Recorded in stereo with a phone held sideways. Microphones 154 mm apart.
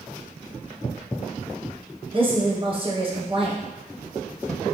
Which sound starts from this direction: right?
A woman speaking, at 2.1 s.